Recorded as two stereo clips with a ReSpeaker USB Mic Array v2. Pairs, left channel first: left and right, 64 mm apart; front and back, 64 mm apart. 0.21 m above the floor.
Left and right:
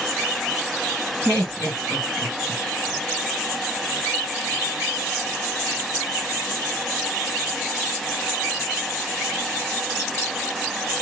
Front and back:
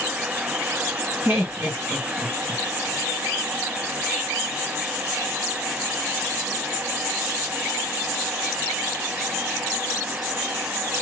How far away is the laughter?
About 1.5 m.